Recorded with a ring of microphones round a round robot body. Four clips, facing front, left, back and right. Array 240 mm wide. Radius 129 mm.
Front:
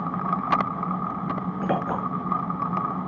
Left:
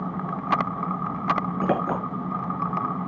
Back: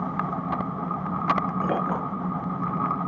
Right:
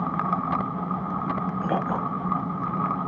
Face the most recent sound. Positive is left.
turn(degrees=80)